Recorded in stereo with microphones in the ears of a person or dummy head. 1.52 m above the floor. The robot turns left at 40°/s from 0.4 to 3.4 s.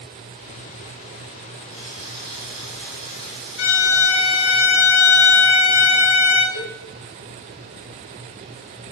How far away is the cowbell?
About 1.1 m.